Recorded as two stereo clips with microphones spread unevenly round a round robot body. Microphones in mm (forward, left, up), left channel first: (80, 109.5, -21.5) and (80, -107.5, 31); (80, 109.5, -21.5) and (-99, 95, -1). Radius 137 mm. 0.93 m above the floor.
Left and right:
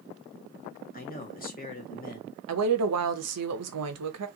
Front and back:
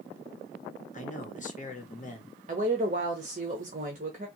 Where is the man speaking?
45° left, 1.2 m.